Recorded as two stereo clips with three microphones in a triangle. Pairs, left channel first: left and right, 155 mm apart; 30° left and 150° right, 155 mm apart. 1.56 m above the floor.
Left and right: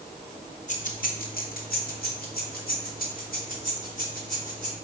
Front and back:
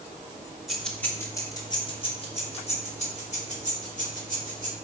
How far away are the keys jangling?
About 1.7 m.